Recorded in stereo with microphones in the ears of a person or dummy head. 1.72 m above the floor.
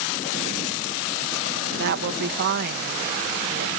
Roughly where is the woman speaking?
Right.